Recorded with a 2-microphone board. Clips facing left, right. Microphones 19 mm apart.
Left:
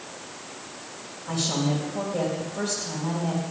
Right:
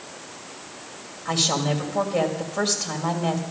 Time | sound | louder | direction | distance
1.2 | a woman speaking | right 4 dB | 50° right (ahead or behind) | 2.5 m